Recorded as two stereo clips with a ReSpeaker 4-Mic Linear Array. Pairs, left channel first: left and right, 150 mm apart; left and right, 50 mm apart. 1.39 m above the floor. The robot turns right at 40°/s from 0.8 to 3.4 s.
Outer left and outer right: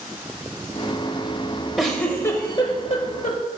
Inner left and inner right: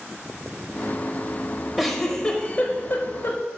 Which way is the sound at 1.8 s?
Centre (ahead or behind).